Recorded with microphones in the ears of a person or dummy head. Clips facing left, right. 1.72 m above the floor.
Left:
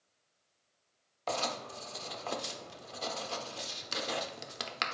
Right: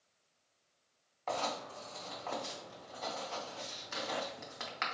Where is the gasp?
I don't hear a gasp.